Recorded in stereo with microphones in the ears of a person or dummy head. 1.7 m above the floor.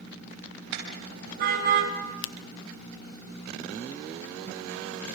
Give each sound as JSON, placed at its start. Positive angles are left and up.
{"t": 0.7, "sound": "a car horn", "side_deg": -55, "distance_m": 5.5}
{"t": 2.2, "sound": "a finger snap", "side_deg": 70, "distance_m": 0.7}